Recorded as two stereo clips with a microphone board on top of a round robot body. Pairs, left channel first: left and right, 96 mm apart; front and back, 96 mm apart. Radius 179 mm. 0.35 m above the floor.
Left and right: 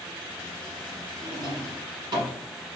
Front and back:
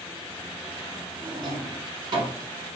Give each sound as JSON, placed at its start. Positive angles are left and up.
{"t": 1.2, "sound": "a drawer", "azimuth_deg": -135, "distance_m": 1.2}